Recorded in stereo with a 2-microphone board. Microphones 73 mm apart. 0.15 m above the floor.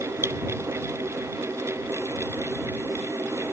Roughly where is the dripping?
Right.